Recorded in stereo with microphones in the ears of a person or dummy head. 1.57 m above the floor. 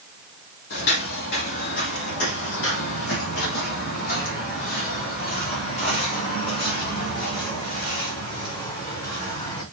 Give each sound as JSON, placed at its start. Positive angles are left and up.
{"t": 0.7, "sound": "footsteps", "side_deg": 55, "distance_m": 3.0}